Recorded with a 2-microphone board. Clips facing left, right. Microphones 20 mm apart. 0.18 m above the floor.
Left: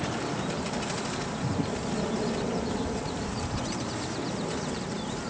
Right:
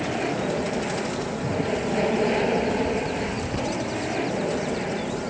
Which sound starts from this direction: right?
An aircraft, at 0.0 s.